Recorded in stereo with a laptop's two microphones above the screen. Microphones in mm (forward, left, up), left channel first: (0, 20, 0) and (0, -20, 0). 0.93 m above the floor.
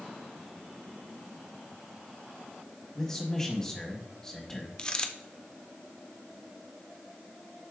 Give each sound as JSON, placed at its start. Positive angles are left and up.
{"t": 3.0, "sound": "a man speaking", "side_deg": 15, "distance_m": 1.1}
{"t": 4.8, "sound": "a dropped coin", "side_deg": 25, "distance_m": 0.5}